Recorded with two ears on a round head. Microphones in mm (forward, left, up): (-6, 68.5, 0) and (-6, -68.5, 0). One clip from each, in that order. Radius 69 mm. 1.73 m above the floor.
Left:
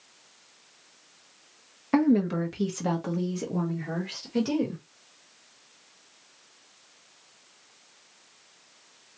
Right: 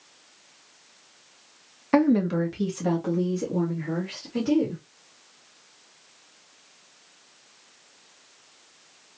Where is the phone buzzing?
I don't hear a phone buzzing.